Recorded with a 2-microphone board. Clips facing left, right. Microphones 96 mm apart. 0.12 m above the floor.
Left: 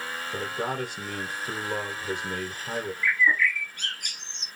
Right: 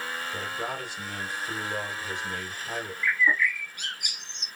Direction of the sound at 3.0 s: 10° right (ahead or behind).